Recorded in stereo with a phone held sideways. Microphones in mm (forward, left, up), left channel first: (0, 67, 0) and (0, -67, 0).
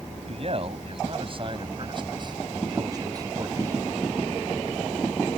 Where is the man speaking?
50° right (ahead or behind); by 3.9 s 20° right (ahead or behind).